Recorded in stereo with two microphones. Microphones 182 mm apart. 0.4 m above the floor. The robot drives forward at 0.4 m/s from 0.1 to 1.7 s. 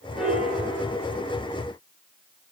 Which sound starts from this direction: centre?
A piano, at 0.2 s.